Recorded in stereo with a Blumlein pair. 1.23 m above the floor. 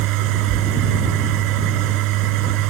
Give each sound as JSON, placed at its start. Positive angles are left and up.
{"t": 0.0, "sound": "a machine running", "azimuth_deg": -40}